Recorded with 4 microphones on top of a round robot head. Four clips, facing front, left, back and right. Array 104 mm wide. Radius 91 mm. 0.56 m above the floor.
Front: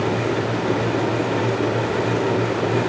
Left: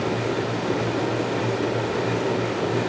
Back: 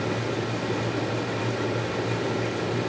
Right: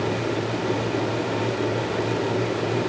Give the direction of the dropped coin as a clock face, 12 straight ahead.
No dropped coin in this recording.